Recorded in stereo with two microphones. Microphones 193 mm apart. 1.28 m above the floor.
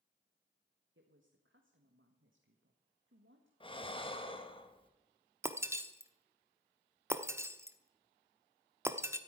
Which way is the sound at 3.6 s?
25° left (ahead or behind).